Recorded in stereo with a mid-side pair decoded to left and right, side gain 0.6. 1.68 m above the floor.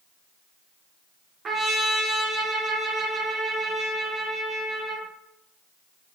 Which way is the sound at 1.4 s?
35° right.